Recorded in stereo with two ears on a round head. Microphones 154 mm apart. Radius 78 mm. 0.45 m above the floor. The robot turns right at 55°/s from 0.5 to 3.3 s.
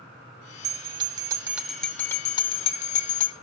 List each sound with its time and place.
0.6 s a bell: 60° right, 1.3 m; by 3.3 s 85° left, 1.3 m